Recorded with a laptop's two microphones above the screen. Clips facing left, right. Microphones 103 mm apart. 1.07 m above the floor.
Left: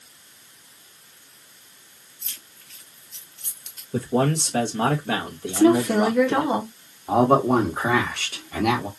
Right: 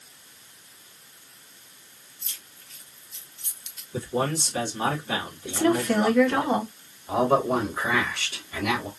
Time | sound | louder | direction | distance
2.2 | keys jangling | left 1 dB | 90° left | 1.2 m
3.9 | a man speaking | left 5 dB | 70° left (ahead or behind) | 1.1 m
5.5 | a woman speaking | left 5 dB | 10° left (ahead or behind) | 0.9 m
7.1 | a man speaking | left 4 dB | 60° left (ahead or behind) | 1.4 m